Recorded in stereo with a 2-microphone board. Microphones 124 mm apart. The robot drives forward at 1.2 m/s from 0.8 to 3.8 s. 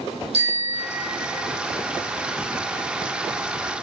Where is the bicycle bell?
55° right (ahead or behind), 5 m; by 1.4 s 65° right (ahead or behind), 4.5 m.